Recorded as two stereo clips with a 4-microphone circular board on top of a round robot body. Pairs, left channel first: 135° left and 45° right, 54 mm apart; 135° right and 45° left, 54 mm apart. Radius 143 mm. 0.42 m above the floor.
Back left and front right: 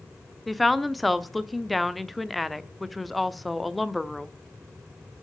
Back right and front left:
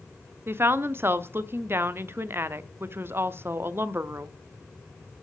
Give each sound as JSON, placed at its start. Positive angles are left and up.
{"t": 0.5, "sound": "a woman speaking", "azimuth_deg": 45, "distance_m": 1.1}